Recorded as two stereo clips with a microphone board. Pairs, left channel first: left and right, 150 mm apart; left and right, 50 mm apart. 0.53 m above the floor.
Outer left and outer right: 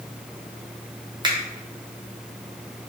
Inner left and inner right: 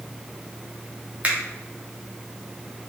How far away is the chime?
I don't hear a chime.